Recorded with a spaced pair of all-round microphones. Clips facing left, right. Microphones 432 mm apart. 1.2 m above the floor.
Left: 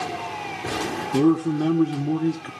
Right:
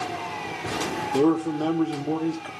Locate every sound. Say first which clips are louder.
1.1 s a man speaking: left 2 dB; 35° left (ahead or behind), 0.7 m